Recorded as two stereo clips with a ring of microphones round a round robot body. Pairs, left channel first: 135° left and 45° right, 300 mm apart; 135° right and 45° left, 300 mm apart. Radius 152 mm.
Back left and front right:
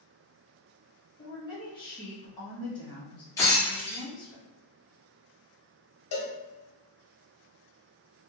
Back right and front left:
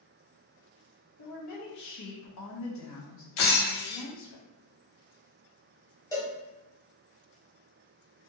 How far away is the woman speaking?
About 0.8 m.